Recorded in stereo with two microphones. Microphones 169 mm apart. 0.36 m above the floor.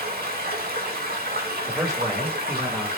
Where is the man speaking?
5° right (ahead or behind), 1.1 m.